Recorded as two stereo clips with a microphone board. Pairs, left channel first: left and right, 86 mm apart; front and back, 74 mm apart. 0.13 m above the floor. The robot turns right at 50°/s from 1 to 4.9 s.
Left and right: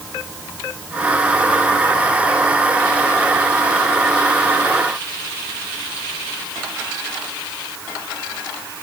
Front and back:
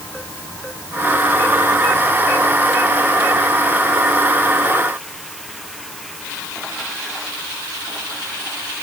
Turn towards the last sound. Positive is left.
No sound to turn to.